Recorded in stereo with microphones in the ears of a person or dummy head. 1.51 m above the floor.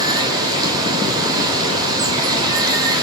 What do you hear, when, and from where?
0.0 s running water: 20° right (ahead or behind), 3 m